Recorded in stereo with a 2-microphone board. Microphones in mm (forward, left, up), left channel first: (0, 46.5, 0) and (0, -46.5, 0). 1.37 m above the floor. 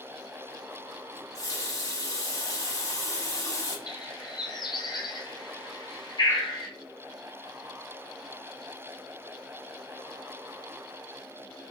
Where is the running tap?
35° left (ahead or behind), 0.8 m.